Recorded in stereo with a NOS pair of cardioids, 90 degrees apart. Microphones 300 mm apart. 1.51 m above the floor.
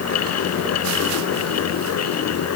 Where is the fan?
65° left.